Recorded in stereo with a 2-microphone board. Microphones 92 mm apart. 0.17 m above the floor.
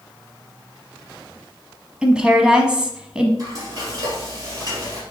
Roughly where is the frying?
Right.